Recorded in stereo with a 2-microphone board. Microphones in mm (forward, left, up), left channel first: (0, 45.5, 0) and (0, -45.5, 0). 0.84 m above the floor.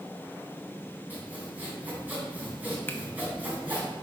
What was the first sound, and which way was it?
Sawing, 20° right (ahead or behind).